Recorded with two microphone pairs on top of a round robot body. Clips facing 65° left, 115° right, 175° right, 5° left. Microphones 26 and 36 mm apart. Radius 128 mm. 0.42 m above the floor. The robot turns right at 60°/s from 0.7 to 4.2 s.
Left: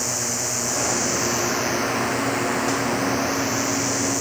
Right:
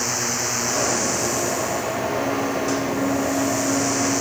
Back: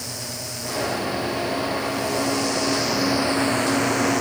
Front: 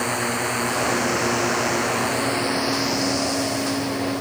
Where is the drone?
40° right; by 4.2 s 170° left.